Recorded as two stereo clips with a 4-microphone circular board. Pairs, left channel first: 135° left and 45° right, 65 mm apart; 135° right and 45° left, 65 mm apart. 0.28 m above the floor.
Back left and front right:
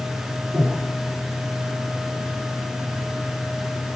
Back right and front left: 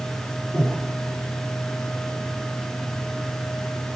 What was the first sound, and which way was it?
Breathing, 95° right.